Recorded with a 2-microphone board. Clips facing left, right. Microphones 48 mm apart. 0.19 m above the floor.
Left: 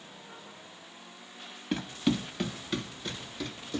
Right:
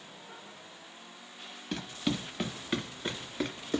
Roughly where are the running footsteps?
Centre.